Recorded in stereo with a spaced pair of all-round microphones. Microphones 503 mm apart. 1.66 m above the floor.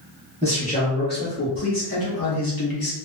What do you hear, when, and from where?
0.4 s a man speaking: 10° left (ahead or behind), 1.2 m; by 3.0 s 45° left (ahead or behind), 0.9 m